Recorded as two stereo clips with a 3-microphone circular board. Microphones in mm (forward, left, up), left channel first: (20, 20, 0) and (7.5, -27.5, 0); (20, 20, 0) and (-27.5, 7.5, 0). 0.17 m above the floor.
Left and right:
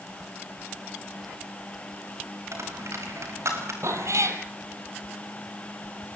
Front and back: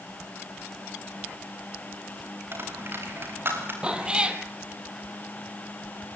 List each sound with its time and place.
2.5 s a dropped coin: 125° right, 7 m
3.8 s a cat meowing: 95° right, 2 m